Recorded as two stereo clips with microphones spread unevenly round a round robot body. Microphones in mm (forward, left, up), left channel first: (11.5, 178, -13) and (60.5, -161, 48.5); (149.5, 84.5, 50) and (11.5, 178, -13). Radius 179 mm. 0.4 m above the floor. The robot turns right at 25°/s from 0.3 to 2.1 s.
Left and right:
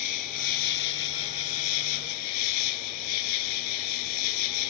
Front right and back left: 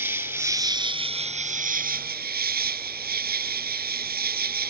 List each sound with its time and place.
0.0 s an insect: 60° left; by 4.7 s 105° left